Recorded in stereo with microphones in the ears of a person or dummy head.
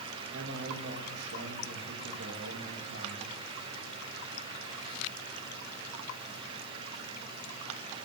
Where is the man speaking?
65° right (ahead or behind), 3.5 m.